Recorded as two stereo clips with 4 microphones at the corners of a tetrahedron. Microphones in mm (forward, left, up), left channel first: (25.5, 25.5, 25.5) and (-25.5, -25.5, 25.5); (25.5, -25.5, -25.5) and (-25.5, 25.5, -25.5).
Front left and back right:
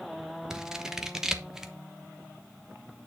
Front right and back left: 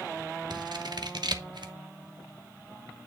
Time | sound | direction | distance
0.5 | scissors | 145° left | 1.0 m